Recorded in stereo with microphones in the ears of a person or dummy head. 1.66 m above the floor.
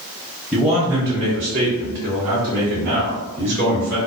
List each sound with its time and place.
0.5 s a man speaking: 5° right (ahead or behind), 0.7 m; by 4.0 s 45° right (ahead or behind), 1.6 m